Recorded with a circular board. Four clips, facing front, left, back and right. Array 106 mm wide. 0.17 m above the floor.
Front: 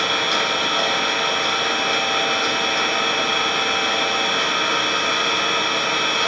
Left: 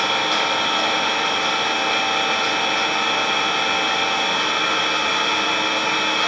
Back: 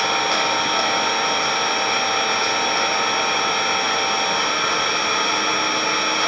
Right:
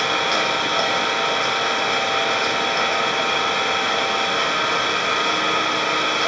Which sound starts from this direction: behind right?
An engine running, at 0.0 s.